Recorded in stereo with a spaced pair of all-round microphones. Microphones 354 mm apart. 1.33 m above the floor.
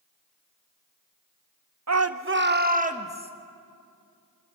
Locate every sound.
1.9 s a shout: 50° right (ahead or behind), 0.8 m; by 3.3 s 15° right (ahead or behind), 1.6 m